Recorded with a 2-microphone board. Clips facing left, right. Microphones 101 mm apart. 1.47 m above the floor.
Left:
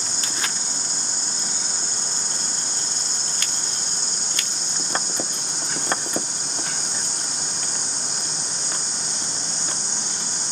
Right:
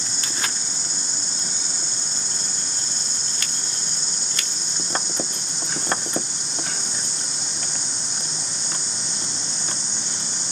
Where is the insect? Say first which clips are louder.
Even; 65° left (ahead or behind), 3.5 m.